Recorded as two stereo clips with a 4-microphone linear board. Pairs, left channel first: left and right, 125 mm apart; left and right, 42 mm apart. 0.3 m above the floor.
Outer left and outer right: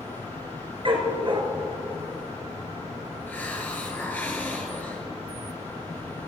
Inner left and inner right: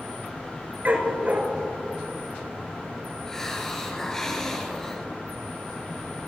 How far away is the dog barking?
About 1.8 m.